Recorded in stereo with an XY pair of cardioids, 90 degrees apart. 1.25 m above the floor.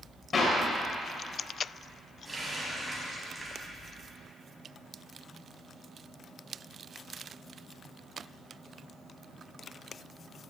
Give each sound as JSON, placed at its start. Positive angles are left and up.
{"t": 0.3, "sound": "a clap", "azimuth_deg": 40, "distance_m": 5.0}
{"t": 2.2, "sound": "a running tap", "azimuth_deg": -20, "distance_m": 6.5}